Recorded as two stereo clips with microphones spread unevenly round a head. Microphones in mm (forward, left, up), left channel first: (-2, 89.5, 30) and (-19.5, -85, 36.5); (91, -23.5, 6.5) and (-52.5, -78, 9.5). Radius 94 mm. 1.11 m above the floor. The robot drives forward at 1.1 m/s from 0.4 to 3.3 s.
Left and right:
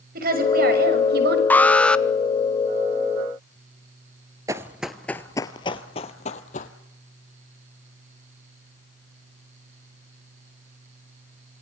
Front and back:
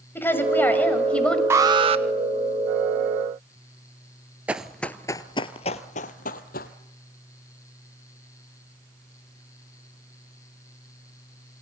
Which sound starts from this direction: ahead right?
A woman speaking, at 0.1 s.